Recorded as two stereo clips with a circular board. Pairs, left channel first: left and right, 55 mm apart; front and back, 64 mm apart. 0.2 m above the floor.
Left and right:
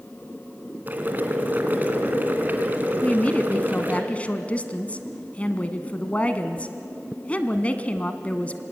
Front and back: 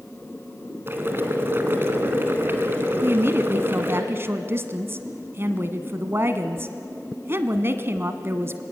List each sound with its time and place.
0.9 s boiling: 135° right, 2 m
3.0 s a woman speaking: 145° left, 1.4 m